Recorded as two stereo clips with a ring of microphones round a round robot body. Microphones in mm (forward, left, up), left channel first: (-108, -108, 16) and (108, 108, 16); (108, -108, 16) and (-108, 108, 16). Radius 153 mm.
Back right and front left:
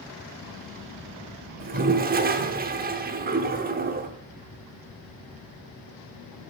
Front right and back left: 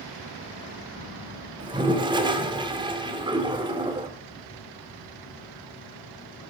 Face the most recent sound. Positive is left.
turn(degrees=75)